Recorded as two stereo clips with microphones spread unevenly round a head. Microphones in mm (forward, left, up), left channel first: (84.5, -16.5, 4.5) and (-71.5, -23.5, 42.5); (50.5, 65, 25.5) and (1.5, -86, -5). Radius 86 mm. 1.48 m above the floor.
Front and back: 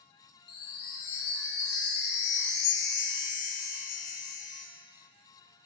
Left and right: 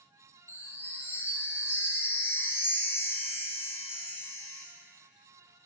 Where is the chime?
5° right, 1.8 m.